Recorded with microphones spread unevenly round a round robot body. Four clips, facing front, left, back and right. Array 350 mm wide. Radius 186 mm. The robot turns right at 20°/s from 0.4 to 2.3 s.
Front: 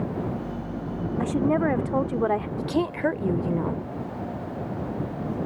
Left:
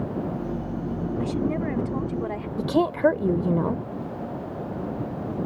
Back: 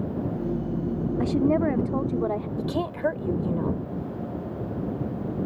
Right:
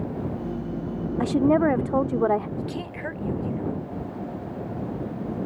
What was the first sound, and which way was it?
A woman speaking, 90° right.